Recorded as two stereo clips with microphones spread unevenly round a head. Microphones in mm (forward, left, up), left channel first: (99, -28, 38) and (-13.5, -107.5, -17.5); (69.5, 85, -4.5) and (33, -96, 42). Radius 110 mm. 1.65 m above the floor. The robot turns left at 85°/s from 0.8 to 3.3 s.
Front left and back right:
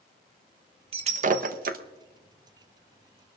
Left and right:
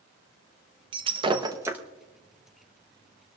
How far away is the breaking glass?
About 0.8 m.